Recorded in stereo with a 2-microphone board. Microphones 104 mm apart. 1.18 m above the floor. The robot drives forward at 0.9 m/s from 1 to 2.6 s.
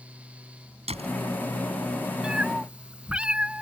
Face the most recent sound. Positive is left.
turn(degrees=-10)  # may be behind; listen again after turning